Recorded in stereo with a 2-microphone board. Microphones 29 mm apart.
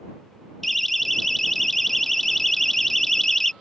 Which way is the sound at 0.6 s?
10° left (ahead or behind).